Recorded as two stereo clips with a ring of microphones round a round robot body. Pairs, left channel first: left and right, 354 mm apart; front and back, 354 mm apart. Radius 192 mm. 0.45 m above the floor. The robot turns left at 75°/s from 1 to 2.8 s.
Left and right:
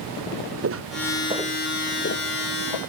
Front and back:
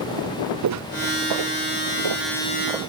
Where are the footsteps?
140° right; by 2.8 s 95° left.